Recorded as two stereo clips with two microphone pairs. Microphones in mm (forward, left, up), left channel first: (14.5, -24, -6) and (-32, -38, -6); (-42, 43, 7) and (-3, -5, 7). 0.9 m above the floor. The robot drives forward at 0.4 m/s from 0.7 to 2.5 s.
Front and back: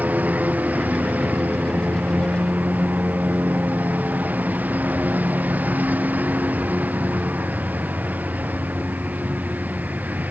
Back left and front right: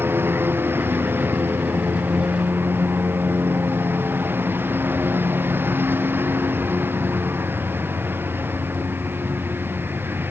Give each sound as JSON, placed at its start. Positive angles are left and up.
{"t": 0.0, "sound": "a lawn mower", "azimuth_deg": -105}